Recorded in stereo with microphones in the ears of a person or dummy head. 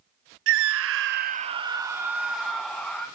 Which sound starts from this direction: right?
A scream, at 0.5 s.